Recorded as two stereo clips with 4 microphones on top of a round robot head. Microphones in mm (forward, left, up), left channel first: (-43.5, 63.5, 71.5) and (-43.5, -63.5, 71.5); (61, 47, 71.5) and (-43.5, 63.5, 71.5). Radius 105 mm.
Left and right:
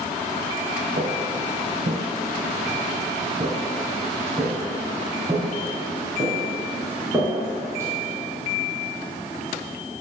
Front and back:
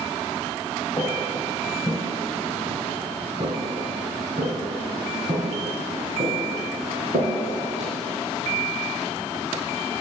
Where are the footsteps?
80° right, 1.6 m; by 7.9 s 160° right, 5 m.